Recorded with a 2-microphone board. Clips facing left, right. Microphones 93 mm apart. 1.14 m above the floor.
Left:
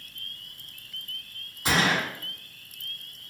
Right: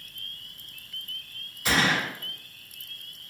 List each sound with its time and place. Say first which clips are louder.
1.6 s a gunshot: even; 35° left (ahead or behind), 1.9 m